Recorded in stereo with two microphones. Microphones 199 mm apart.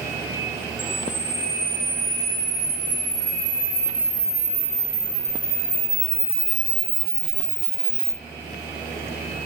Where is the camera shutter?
10° right (ahead or behind), 3.5 m.